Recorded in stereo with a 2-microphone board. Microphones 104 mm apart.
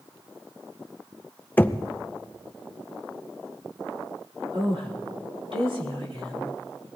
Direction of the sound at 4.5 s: 60° right (ahead or behind).